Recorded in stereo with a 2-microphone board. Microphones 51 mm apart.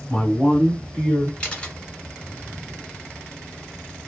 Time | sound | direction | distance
0.1 | a man speaking | 10° left (ahead or behind) | 1.3 m
1.4 | a camera shutter | 20° left (ahead or behind) | 1.2 m